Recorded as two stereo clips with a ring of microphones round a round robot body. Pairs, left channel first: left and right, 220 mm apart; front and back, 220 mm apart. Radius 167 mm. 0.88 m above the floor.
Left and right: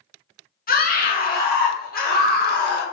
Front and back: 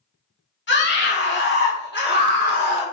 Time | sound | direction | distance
0.7 | a scream | 40° left | 1.4 m